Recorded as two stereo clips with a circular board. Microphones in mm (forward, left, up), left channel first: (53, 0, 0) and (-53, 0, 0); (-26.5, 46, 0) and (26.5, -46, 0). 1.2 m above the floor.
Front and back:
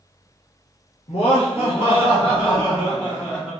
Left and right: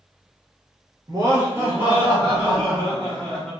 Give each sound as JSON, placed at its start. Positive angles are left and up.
{"t": 1.1, "sound": "laughter", "azimuth_deg": -10, "distance_m": 0.9}